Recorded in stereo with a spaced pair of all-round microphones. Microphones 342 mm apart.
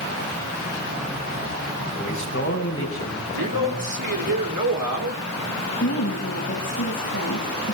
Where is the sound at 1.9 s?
40° left (ahead or behind), 7.5 m; by 4.3 s 45° left (ahead or behind), 7 m.